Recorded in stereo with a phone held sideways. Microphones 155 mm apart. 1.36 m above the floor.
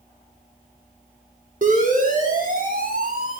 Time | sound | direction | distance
1.6 | a siren | 60° right (ahead or behind) | 6.5 m